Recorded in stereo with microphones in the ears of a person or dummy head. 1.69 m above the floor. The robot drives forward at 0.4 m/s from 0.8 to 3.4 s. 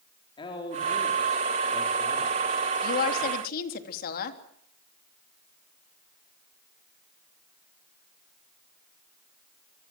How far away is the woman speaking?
About 3 m.